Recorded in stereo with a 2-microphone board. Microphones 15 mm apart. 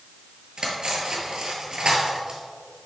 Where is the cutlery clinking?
60° right (ahead or behind), 1.7 m.